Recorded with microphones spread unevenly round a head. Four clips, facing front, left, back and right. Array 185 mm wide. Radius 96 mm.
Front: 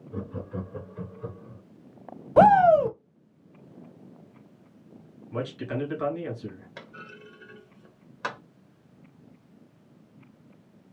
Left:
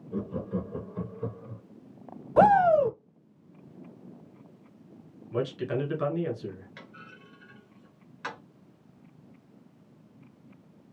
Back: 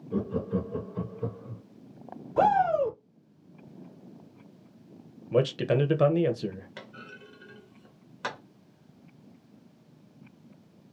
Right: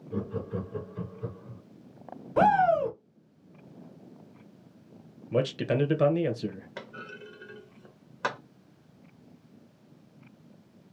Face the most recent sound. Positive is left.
turn(degrees=-85)